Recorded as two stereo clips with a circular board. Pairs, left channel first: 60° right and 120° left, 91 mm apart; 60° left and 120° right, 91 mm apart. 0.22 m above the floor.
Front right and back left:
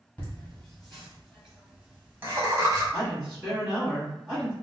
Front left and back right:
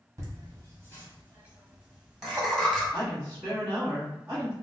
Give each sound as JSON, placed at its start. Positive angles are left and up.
{"t": 0.2, "sound": "laughter", "azimuth_deg": -125, "distance_m": 1.7}
{"t": 2.9, "sound": "a woman speaking", "azimuth_deg": -160, "distance_m": 1.7}